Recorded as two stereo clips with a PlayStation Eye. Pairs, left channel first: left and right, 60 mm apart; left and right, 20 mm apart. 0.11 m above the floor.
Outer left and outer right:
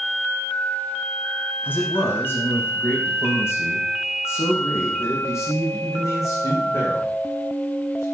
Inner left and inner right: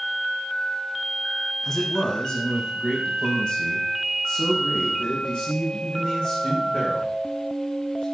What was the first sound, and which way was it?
A man speaking, 30° left (ahead or behind).